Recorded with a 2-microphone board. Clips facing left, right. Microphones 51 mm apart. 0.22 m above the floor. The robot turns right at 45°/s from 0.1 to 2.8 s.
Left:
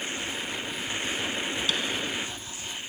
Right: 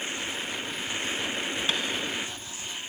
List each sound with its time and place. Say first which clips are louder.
1.7 s tapping: even; 40° right (ahead or behind), 0.6 m; by 1.8 s 35° right (ahead or behind), 0.6 m